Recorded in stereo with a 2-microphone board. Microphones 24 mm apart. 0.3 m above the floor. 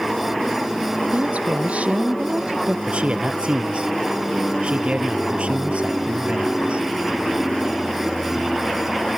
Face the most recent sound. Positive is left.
turn(degrees=-60)  # may be behind; listen again after turning